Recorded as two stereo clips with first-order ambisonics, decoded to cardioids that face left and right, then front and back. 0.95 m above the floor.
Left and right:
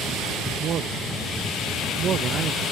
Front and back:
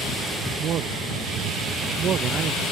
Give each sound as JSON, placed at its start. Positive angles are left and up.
{"t": 0.6, "sound": "a man speaking", "azimuth_deg": -135}